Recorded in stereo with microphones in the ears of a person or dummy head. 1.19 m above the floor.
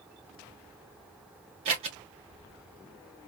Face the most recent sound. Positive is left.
turn(degrees=-35)  # may be behind; listen again after turning